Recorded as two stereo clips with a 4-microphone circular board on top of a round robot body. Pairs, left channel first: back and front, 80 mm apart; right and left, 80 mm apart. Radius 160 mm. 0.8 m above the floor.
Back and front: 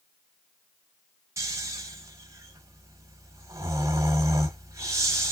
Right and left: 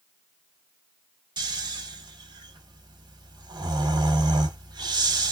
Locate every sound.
1.4 s snoring: 55° left, 1.3 m